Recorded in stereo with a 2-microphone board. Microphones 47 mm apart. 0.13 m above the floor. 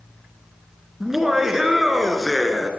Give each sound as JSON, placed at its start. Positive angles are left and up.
{"t": 1.0, "sound": "laughter", "side_deg": -5, "distance_m": 1.4}